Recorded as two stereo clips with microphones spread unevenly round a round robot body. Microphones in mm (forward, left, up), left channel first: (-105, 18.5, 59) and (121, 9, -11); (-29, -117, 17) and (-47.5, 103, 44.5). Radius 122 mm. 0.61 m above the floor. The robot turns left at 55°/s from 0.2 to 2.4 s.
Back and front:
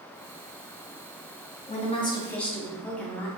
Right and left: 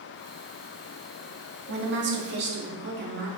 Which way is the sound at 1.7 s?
115° left.